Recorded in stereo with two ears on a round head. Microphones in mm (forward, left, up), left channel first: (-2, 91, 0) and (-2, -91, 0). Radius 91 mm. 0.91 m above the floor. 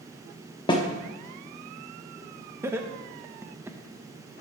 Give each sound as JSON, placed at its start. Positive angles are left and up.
{"t": 0.7, "sound": "a snare drum", "side_deg": 20, "distance_m": 1.0}
{"t": 2.6, "sound": "laughter", "side_deg": -10, "distance_m": 0.8}